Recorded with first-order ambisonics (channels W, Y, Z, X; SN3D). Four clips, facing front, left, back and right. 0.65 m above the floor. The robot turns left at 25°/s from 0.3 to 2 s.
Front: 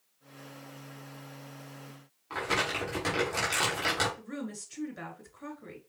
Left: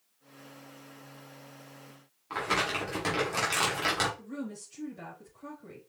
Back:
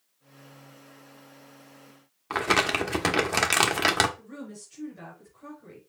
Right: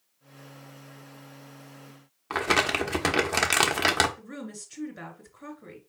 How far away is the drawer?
I don't hear a drawer.